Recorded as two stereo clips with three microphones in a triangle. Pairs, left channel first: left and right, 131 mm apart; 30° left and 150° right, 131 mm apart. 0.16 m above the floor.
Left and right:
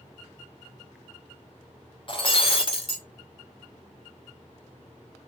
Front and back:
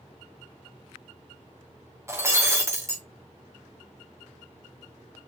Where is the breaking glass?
140° left, 2.5 m.